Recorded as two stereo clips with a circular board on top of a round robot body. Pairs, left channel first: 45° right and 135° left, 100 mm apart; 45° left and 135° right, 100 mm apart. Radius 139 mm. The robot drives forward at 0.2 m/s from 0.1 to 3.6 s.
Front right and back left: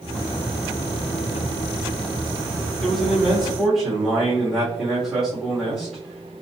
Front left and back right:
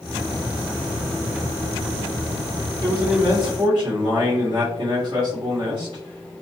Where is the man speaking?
135° right, 1.3 m; by 6.3 s 140° right, 1.3 m.